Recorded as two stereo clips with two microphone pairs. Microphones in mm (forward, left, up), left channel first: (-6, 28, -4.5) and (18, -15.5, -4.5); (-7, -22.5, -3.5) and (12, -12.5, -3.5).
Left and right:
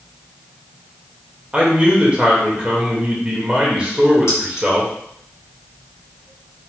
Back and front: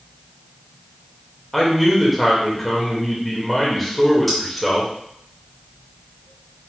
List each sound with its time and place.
1.5 s a man speaking: 75° right, 1.5 m
4.3 s keys jangling: 120° left, 2.5 m